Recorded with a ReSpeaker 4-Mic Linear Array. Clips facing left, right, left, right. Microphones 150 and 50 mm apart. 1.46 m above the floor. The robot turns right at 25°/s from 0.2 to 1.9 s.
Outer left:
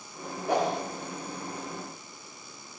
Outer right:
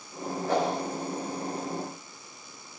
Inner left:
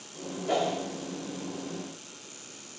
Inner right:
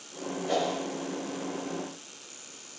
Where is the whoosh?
15° left (ahead or behind), 0.7 m; by 0.8 s 20° left (ahead or behind), 0.7 m.